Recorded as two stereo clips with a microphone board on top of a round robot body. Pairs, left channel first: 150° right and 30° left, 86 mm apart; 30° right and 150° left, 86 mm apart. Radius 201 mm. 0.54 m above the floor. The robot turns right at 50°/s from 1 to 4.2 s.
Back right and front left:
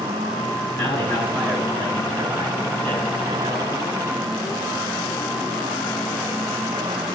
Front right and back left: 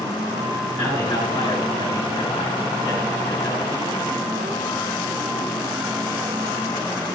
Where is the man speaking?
100° right, 9 m; by 3.8 s 40° left, 9 m.